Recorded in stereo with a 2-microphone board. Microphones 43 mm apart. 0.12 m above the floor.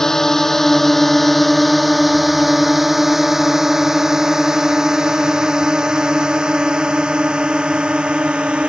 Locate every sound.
0.0 s a drone: 15° left (ahead or behind); by 8.7 s 20° right (ahead or behind)